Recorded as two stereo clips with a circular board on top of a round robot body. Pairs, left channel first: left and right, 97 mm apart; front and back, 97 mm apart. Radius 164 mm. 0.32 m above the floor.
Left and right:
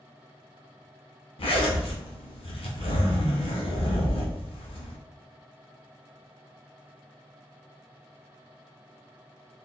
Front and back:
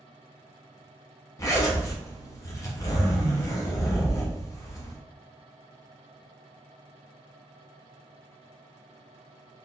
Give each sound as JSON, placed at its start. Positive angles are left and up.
{"t": 1.4, "sound": "a zipper", "azimuth_deg": 60, "distance_m": 0.9}